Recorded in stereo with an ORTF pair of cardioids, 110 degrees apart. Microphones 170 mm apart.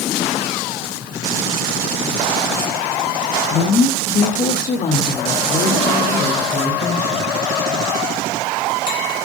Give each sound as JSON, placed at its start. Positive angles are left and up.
{"t": 3.5, "sound": "a woman speaking", "azimuth_deg": 45, "distance_m": 1.6}